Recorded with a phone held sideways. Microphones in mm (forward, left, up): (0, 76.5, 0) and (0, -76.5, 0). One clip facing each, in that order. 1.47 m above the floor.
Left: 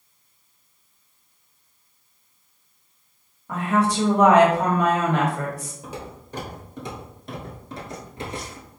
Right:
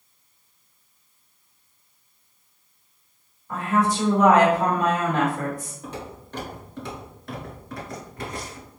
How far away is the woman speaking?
About 1.3 m.